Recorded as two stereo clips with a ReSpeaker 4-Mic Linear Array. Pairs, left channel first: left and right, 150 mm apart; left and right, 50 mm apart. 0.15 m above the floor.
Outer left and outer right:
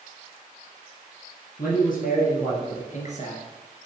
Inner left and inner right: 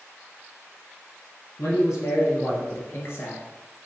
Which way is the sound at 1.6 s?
70° left (ahead or behind).